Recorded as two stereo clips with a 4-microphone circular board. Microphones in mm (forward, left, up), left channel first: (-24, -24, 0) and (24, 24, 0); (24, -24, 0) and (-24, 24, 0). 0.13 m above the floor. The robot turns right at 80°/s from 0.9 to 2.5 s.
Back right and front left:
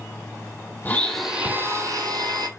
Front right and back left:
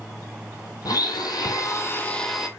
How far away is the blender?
About 0.8 m.